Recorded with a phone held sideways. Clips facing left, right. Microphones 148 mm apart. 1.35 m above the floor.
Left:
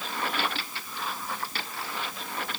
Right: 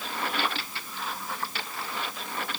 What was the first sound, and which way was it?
Only background noise.